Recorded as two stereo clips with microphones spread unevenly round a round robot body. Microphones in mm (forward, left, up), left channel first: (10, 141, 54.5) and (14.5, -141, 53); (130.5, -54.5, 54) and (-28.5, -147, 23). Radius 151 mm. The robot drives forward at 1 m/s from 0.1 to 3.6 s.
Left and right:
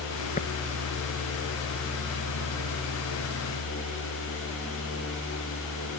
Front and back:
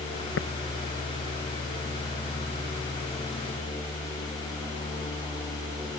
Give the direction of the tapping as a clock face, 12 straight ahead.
11 o'clock.